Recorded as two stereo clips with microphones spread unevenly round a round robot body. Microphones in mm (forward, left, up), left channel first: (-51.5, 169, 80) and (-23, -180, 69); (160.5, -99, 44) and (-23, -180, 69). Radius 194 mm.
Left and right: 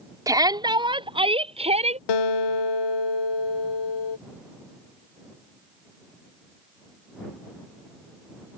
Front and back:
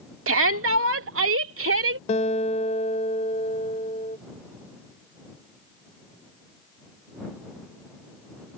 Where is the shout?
165° right; by 2.0 s 155° right.